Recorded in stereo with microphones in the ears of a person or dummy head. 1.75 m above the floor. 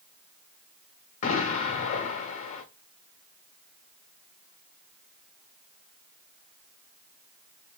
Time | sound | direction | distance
1.2 | an explosion | 35° left (ahead or behind) | 0.7 m